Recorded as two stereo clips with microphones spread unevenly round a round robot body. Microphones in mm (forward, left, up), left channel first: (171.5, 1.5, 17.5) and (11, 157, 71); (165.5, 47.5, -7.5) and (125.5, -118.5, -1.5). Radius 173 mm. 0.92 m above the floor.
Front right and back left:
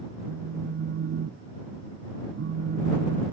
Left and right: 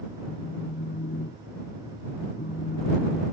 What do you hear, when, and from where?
0.2 s a phone buzzing: 110° left